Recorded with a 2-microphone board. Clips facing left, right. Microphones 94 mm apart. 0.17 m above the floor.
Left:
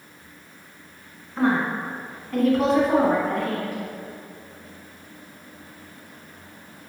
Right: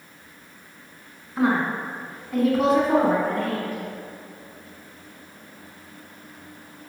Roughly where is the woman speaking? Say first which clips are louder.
Even; centre.